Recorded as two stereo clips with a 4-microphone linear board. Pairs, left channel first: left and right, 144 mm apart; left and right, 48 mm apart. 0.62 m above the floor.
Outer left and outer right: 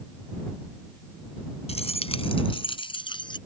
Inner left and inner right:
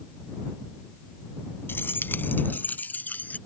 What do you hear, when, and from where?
1.7 s keys jangling: 50° left (ahead or behind); by 3.4 s 35° left (ahead or behind)